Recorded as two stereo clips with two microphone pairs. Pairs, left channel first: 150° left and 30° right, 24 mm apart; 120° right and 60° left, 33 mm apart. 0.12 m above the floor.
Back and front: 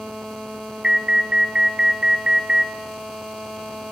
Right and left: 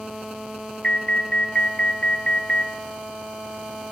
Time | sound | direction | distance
0.8 | an alarm | 70° right | 1.6 m